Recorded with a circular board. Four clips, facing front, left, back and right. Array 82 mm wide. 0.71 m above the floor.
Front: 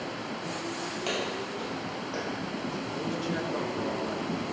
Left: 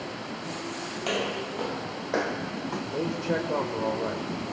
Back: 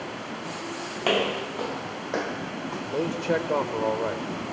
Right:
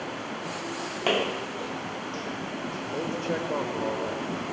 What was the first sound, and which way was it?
Footsteps, 140° right.